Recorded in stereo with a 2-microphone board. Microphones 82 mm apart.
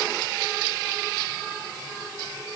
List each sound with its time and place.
Only background noise.